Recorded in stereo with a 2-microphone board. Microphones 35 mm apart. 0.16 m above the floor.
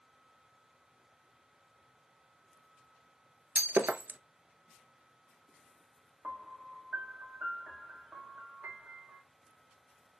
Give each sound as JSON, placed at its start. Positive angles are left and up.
{"t": 3.5, "sound": "breaking glass", "side_deg": -75, "distance_m": 0.6}
{"t": 6.2, "sound": "a piano", "side_deg": -60, "distance_m": 1.2}